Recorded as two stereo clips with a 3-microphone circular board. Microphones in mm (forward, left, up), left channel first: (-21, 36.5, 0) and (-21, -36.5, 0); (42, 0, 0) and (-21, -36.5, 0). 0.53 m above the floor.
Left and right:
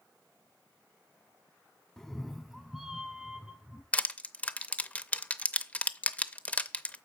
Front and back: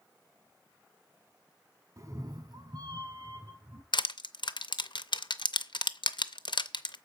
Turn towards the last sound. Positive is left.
turn(degrees=20)